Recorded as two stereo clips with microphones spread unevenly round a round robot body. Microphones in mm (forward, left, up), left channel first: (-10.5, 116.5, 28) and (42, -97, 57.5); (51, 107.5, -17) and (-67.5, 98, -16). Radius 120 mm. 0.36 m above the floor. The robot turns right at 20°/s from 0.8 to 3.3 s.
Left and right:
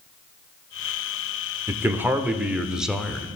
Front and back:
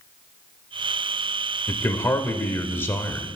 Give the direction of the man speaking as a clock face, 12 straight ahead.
12 o'clock.